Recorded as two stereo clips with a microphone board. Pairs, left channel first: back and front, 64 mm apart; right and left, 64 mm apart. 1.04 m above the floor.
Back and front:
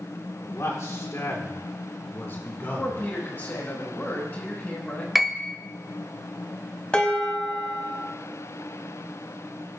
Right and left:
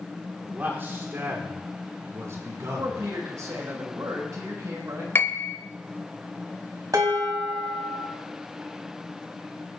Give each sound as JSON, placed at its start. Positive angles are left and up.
{"t": 0.4, "sound": "a man speaking", "azimuth_deg": 150, "distance_m": 3.5}
{"t": 2.6, "sound": "a man speaking", "azimuth_deg": 130, "distance_m": 5.0}
{"t": 5.2, "sound": "a piano", "azimuth_deg": -85, "distance_m": 0.9}
{"t": 6.9, "sound": "dishes clattering", "azimuth_deg": 110, "distance_m": 4.5}